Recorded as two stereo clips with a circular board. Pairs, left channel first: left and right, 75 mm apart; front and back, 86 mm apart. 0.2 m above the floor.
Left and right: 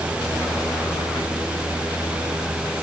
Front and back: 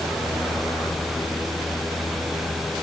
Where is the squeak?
I don't hear a squeak.